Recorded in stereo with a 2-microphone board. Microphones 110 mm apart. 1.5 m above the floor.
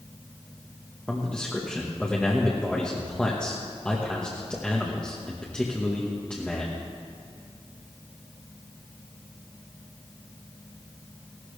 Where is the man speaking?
10° left (ahead or behind), 1.5 m.